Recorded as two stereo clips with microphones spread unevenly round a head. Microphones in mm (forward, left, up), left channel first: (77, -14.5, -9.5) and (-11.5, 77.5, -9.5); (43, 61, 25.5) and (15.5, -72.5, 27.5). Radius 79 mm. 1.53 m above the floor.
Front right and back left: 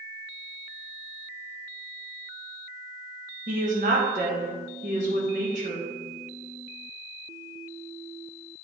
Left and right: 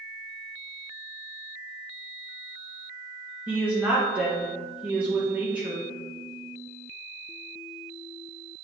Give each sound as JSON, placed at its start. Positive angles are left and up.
{"t": 3.5, "sound": "a woman speaking", "azimuth_deg": 175, "distance_m": 1.5}